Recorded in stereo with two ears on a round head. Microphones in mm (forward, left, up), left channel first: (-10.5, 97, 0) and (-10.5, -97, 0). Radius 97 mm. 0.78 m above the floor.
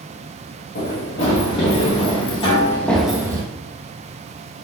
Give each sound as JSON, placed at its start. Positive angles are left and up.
{"t": 0.8, "sound": "running footsteps", "side_deg": 40, "distance_m": 3.5}
{"t": 2.4, "sound": "a snare drum", "side_deg": 25, "distance_m": 2.5}